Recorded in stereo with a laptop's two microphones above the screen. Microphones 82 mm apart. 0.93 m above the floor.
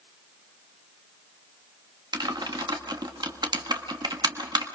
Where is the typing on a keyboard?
60° right (ahead or behind), 1.3 m.